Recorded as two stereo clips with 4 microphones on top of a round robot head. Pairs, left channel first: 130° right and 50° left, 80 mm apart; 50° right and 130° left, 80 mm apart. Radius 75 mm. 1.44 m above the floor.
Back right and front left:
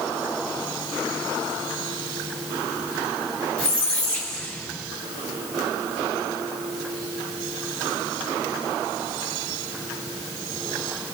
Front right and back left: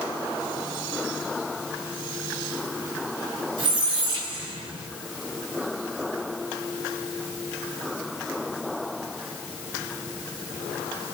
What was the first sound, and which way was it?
A squeak, 155° left.